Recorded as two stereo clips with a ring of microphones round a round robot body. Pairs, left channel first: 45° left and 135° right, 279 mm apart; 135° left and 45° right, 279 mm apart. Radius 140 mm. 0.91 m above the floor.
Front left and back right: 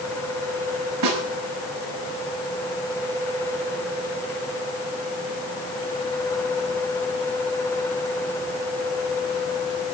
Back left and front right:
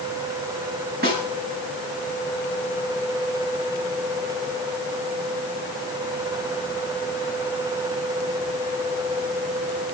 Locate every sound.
1.0 s a snare drum: 105° right, 7 m